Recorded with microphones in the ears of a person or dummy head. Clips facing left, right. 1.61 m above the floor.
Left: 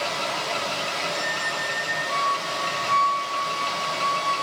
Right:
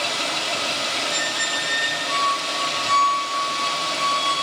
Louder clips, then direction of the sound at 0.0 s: Even; 35° right (ahead or behind).